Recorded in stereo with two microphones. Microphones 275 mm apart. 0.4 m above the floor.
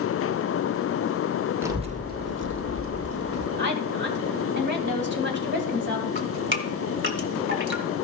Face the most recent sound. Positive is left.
turn(degrees=-45)  # may be behind; listen again after turning